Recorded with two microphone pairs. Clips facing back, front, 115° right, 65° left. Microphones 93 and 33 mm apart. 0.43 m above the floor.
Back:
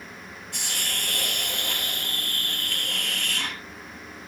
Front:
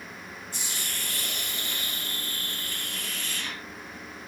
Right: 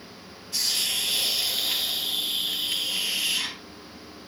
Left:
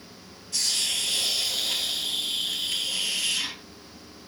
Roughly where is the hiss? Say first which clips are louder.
Back 5 dB, right 1 dB; behind.